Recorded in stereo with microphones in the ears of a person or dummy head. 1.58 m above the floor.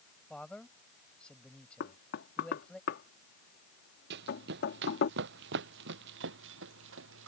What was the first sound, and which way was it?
A man speaking, 5° left (ahead or behind).